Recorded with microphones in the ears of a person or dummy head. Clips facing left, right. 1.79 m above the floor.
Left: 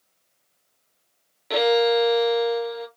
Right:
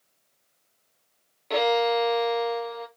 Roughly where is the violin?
Centre.